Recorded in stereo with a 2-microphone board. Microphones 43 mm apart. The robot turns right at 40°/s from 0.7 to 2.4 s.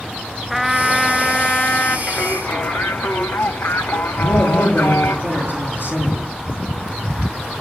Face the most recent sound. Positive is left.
turn(degrees=50)  # may be behind; listen again after turning